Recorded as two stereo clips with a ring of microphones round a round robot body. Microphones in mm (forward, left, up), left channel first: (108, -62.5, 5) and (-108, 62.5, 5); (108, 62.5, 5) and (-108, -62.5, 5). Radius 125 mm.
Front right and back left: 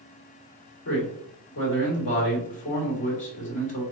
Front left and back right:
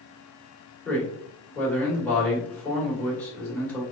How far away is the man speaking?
About 1.8 m.